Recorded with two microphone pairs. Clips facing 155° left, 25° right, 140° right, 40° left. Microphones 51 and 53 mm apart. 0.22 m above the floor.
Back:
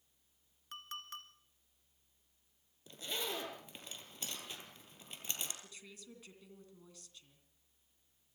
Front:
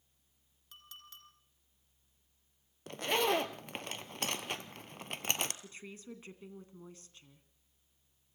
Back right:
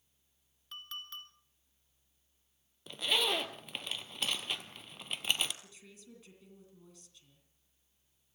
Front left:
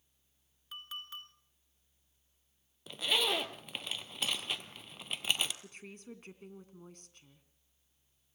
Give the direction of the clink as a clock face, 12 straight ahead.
8 o'clock.